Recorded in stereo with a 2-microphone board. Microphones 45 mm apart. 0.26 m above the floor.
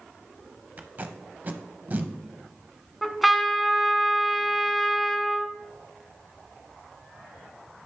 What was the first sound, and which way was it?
Tape being pulled, 45° right (ahead or behind).